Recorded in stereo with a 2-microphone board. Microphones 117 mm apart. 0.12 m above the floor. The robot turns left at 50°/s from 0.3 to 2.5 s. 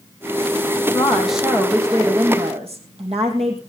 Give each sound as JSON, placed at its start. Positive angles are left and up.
{"t": 0.9, "sound": "a woman speaking", "azimuth_deg": 15, "distance_m": 4.5}